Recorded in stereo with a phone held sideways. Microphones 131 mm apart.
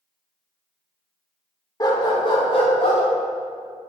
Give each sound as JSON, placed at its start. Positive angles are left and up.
{"t": 1.8, "sound": "a dog barking", "side_deg": 30, "distance_m": 1.0}